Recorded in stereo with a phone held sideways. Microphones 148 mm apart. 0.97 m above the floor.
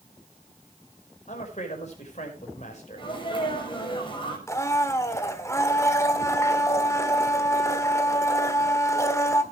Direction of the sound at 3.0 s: 35° left (ahead or behind).